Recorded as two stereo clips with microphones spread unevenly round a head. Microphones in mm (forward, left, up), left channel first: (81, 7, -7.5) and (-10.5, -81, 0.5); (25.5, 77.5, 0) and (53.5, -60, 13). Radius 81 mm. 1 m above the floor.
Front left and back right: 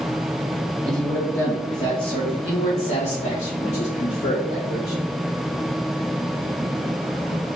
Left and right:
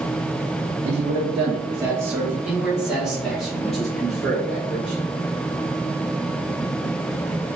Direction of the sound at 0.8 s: 45° right.